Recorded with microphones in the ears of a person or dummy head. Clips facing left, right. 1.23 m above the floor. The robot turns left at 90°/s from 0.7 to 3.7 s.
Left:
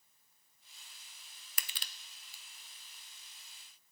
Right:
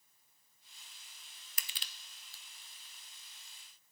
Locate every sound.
1.6 s crushing: 50° left (ahead or behind), 0.5 m; by 2.4 s 10° left (ahead or behind), 0.5 m